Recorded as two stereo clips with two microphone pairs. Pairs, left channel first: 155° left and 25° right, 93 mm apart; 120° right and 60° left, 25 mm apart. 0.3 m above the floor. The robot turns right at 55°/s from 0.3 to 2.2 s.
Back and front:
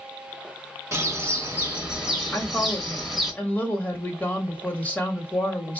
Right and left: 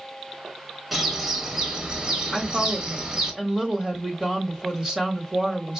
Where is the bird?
10° right, 1.1 m; by 3.3 s 60° left, 1.1 m.